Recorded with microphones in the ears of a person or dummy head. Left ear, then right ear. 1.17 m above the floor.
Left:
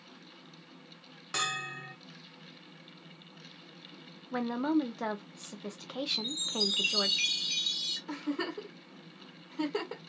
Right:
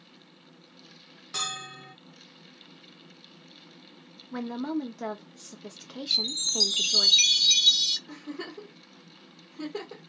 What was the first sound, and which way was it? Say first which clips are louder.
A bell: even; 25° left (ahead or behind).